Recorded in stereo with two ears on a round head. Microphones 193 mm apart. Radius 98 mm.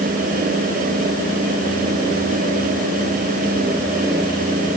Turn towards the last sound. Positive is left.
No sound to turn to.